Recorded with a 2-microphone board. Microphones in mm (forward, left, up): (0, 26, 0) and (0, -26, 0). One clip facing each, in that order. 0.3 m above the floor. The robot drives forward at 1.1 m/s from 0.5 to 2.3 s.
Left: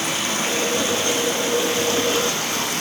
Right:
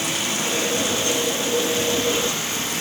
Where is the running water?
45° left (ahead or behind), 8.5 m; by 2.8 s 55° left (ahead or behind), 7.5 m.